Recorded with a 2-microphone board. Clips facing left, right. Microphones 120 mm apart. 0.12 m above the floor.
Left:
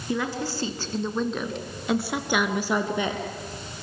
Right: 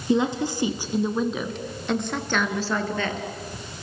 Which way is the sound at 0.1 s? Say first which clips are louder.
Right 6 dB; 20° right (ahead or behind).